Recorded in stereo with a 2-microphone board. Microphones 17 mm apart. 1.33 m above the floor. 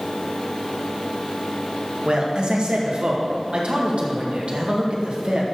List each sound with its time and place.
2.0 s a man speaking: 75° right (ahead or behind), 1.9 m